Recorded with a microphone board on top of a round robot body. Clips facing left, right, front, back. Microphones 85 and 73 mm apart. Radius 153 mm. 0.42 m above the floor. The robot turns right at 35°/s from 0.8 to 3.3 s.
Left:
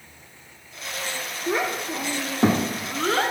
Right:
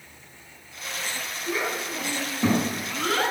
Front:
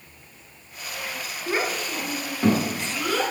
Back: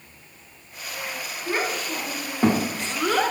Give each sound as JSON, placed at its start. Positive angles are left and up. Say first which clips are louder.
{"t": 1.5, "sound": "a child speaking", "louder": "left 4 dB, even", "azimuth_deg": 85, "distance_m": 1.1}